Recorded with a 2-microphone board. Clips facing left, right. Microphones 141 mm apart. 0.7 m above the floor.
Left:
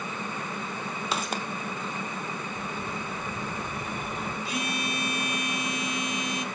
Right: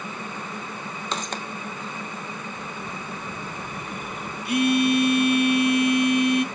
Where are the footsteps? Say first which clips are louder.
Even; 10° left (ahead or behind), 1.3 m.